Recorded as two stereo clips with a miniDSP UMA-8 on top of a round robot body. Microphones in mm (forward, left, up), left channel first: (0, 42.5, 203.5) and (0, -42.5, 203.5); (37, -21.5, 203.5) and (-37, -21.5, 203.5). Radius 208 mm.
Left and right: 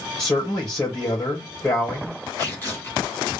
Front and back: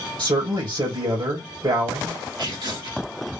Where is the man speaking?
175° left, 2.5 m.